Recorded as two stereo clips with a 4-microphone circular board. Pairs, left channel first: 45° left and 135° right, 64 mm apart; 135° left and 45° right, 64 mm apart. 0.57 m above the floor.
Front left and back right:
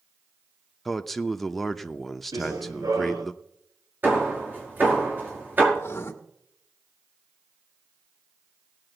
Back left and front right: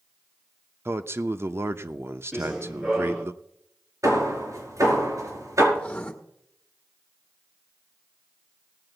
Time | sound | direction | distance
0.8 | a man speaking | 45° right | 0.8 m
2.3 | running footsteps | 125° right | 2.5 m
4.0 | hammering | 75° right | 5 m
5.7 | writing | 75° left | 1.5 m